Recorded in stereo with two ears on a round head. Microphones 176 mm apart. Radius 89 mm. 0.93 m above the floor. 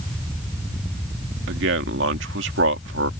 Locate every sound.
1.5 s a man speaking: 65° right (ahead or behind)